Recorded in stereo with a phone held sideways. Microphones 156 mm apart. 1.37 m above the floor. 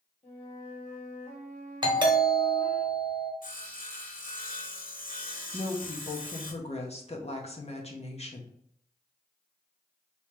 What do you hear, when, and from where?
0.2 s a flute: 40° left (ahead or behind), 1.9 m
1.8 s a doorbell: 30° right (ahead or behind), 0.9 m
3.4 s sawing: 60° left (ahead or behind), 0.7 m
5.5 s a woman speaking: 45° left (ahead or behind), 0.8 m